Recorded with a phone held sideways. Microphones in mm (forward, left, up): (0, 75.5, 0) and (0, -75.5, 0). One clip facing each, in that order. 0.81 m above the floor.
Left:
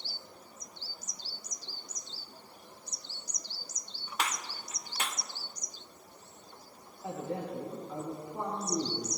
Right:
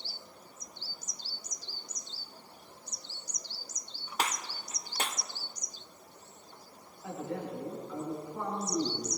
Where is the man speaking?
30° left (ahead or behind), 4 m.